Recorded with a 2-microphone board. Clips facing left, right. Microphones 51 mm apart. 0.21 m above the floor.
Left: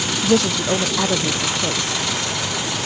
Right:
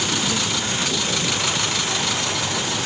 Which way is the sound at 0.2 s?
65° left (ahead or behind).